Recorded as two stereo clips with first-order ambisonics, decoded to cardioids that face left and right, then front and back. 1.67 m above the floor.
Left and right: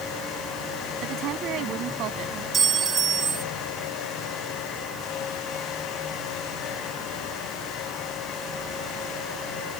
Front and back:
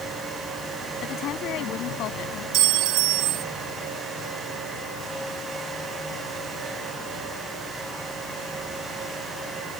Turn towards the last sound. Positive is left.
turn(degrees=-155)